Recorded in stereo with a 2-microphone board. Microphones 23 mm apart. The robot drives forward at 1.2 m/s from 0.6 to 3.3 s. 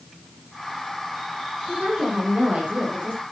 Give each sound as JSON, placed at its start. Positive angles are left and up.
{"t": 1.7, "sound": "a woman speaking", "side_deg": -65, "distance_m": 7.0}